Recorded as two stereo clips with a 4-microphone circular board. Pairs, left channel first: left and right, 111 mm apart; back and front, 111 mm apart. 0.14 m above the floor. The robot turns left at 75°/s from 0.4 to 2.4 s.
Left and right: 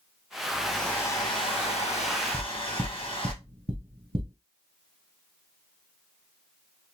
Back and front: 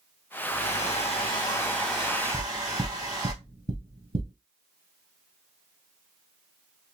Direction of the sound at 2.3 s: 20° right.